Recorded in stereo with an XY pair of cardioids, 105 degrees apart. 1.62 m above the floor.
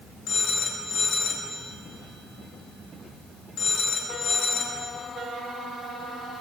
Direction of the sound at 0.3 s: 60° left.